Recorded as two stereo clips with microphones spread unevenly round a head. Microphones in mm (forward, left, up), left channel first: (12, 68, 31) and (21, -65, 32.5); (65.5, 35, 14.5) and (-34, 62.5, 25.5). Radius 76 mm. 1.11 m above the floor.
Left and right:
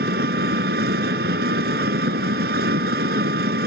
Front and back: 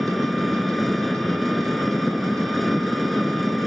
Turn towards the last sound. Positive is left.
turn(degrees=-105)